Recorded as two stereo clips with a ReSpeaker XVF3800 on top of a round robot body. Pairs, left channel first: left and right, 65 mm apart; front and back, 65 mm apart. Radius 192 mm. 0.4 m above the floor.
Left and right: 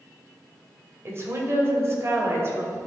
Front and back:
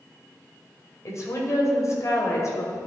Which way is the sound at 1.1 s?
40° right.